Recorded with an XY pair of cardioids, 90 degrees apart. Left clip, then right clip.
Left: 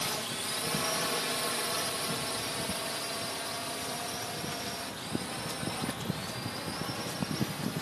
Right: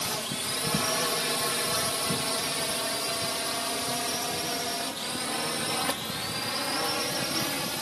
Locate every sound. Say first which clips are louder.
0.0 s a drone: right 3 dB; 30° right; by 7.8 s 75° right